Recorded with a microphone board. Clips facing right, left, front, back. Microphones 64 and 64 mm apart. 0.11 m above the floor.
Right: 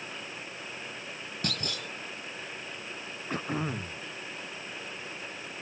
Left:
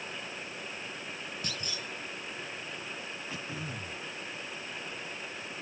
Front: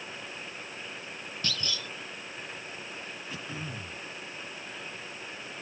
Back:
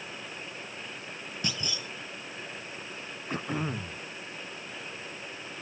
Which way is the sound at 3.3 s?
130° right.